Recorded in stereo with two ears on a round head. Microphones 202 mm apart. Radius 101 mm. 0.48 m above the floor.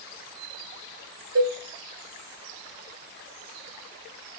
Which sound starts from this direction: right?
A cowbell, at 1.4 s.